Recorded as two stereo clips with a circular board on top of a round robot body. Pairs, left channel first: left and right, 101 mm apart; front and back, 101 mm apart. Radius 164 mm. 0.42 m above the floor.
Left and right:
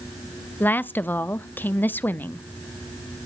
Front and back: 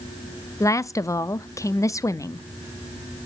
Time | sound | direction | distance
0.6 | a woman speaking | 30° left | 0.8 m